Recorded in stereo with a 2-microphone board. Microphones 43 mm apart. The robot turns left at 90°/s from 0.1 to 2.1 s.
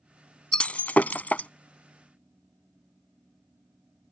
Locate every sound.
0.5 s breaking glass: 20° left (ahead or behind); by 1.5 s 35° left (ahead or behind)